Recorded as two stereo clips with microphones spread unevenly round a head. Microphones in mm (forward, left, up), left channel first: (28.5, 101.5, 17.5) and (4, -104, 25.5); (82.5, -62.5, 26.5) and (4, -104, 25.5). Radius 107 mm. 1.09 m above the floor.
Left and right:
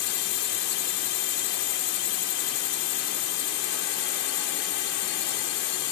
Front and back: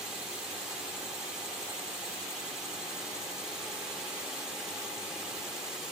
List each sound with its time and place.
0.0 s a drone: 120° left